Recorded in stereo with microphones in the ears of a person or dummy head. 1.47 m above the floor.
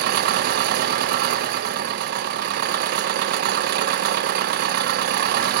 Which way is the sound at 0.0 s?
50° right (ahead or behind).